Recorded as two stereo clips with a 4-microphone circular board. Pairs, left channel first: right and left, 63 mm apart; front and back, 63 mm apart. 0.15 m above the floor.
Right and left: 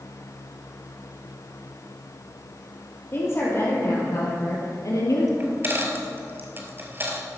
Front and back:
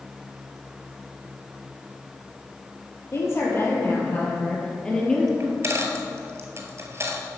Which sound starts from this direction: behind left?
A dropped coin, at 5.4 s.